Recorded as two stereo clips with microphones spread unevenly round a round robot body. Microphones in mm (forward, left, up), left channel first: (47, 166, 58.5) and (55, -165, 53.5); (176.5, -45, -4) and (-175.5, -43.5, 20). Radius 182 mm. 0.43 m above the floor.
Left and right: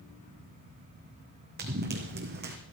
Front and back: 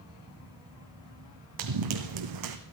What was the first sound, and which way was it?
Running footsteps, 155° right.